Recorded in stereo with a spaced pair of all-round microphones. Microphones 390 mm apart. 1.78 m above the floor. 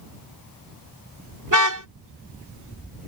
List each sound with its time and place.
1.5 s a car horn: 50° right (ahead or behind)